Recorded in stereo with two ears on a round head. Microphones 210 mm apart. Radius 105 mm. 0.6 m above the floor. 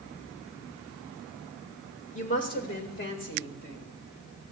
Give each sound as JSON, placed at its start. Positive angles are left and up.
{"t": 2.1, "sound": "a woman speaking", "side_deg": 30, "distance_m": 1.4}